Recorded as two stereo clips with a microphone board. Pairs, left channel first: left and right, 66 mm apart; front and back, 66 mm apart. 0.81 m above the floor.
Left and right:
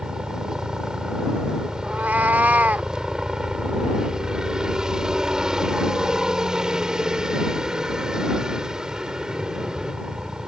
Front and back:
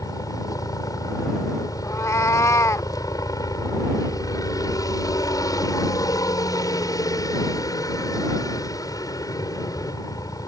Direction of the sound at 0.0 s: 10° right.